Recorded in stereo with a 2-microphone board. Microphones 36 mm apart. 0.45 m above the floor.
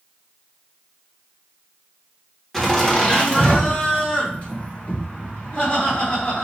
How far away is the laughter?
About 1.1 m.